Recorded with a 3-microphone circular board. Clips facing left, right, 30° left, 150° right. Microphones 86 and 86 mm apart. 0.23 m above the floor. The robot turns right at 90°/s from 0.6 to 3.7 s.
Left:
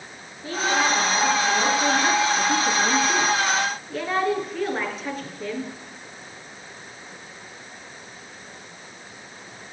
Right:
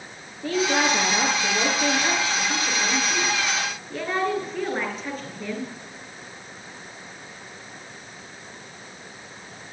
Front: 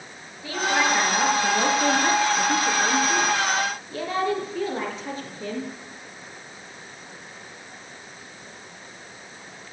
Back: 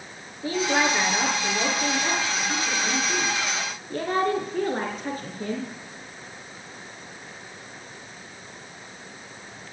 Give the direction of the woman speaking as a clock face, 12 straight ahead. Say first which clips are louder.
Right 1 dB, even; 3 o'clock.